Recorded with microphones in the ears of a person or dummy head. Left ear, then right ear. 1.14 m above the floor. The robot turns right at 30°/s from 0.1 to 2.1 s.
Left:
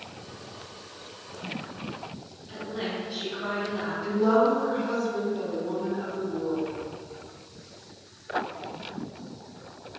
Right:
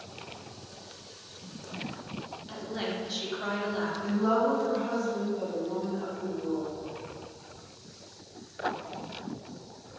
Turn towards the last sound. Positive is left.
turn(degrees=35)  # may be behind; listen again after turning